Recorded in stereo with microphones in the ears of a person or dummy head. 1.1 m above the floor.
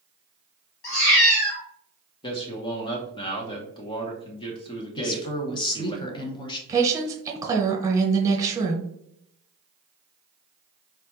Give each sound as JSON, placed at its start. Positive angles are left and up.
{"t": 0.8, "sound": "a cat meowing", "side_deg": 60, "distance_m": 1.3}
{"t": 2.2, "sound": "a man speaking", "side_deg": 25, "distance_m": 0.7}
{"t": 5.0, "sound": "a woman speaking", "side_deg": 20, "distance_m": 0.8}
{"t": 6.7, "sound": "a woman speaking", "side_deg": -20, "distance_m": 0.8}